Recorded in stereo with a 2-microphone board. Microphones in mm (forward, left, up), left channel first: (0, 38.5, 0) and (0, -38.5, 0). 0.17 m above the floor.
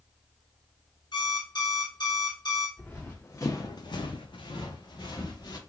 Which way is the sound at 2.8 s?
15° left (ahead or behind).